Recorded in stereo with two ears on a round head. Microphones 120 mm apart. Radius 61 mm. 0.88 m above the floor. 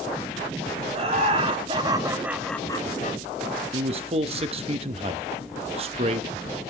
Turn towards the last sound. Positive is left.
turn(degrees=-50)  # may be behind; listen again after turning